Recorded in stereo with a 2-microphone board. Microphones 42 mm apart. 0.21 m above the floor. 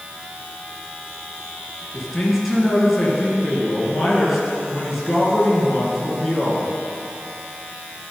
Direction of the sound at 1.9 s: 5° right (ahead or behind).